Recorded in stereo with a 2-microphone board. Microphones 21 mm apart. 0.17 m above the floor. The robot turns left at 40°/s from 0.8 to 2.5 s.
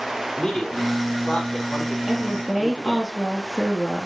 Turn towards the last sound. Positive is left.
turn(degrees=5)  # may be behind; listen again after turning